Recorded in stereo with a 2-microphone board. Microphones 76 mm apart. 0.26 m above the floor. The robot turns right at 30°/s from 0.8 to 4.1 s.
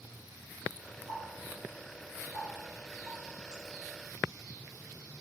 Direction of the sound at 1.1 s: 20° left (ahead or behind).